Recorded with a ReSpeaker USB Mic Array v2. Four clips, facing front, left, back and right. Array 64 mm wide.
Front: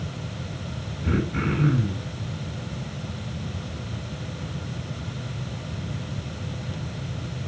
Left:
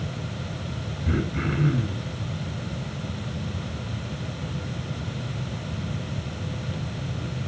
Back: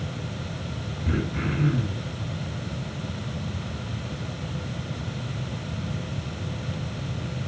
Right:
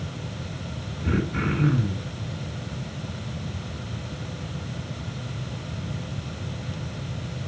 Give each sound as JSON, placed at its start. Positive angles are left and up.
{"t": 1.0, "sound": "throat clearing", "azimuth_deg": -40, "distance_m": 7.5}